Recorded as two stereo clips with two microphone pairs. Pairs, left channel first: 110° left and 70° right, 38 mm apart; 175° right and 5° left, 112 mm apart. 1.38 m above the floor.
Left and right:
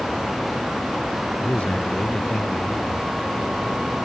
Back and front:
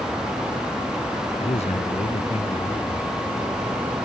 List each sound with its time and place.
1.4 s a man speaking: 170° left